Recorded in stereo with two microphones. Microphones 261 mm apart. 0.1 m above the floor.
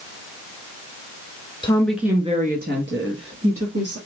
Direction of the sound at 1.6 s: 20° left (ahead or behind).